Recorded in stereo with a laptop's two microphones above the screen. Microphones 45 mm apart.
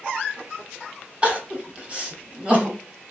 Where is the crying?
25° right (ahead or behind), 0.8 m.